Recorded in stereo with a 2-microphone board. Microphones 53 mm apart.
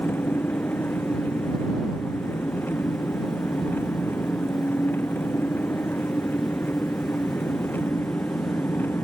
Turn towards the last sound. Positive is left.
turn(degrees=35)  # may be behind; listen again after turning